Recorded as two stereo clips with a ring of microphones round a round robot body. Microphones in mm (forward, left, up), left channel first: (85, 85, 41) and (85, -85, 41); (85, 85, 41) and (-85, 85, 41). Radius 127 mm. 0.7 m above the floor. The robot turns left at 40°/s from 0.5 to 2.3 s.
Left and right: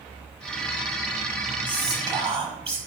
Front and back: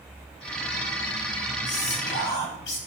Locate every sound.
1.7 s whispering: 5° right, 5 m; by 2.8 s 30° right, 5 m